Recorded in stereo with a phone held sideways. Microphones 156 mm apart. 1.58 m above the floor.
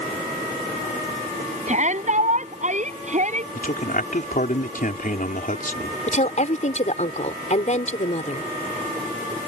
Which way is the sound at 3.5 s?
60° left (ahead or behind).